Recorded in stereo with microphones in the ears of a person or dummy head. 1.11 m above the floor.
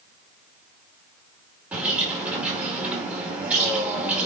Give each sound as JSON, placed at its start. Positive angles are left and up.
{"t": 1.7, "sound": "a bird", "side_deg": -10, "distance_m": 2.5}